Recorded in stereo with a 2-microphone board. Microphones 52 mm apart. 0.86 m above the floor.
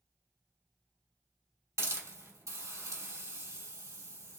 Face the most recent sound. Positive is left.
turn(degrees=-85)